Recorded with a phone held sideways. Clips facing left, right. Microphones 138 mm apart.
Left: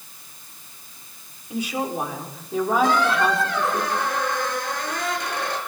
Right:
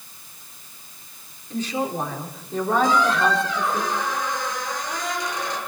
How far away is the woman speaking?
About 5.5 m.